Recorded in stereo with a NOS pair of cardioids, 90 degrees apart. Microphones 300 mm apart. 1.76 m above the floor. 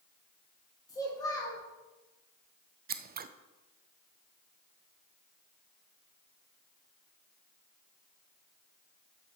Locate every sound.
0.9 s a child speaking: 10° left, 2.5 m
2.9 s scissors: 30° right, 0.5 m